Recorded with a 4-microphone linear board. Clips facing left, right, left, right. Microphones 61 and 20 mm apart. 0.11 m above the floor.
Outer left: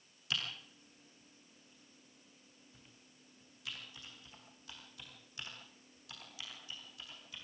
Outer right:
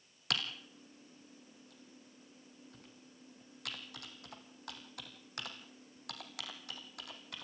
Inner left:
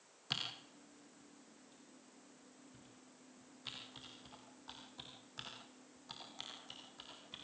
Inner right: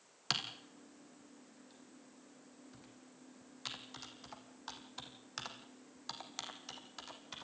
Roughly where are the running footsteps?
I don't hear running footsteps.